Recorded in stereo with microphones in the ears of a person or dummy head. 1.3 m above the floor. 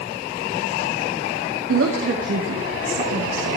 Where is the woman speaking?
80° right, 2.5 m.